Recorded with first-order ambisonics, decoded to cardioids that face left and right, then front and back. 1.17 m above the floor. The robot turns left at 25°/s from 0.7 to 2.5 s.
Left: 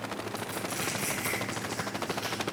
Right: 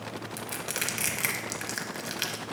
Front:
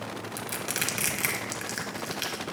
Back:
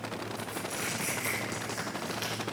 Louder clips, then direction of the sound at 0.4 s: Right 3 dB, front 7 dB; 35° right.